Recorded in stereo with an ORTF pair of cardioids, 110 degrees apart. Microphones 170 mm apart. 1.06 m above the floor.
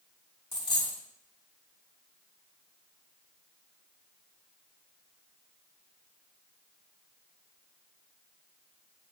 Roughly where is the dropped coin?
Ahead left.